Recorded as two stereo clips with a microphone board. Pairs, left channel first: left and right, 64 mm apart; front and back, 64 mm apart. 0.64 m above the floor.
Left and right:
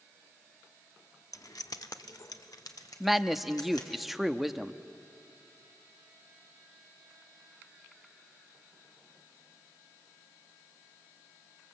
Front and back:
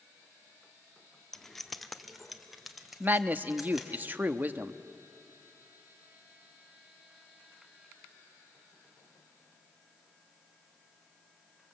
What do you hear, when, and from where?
1.3 s keys jangling: 80° left, 0.6 m; by 4.0 s 95° left, 3 m
3.0 s a man speaking: 175° right, 0.8 m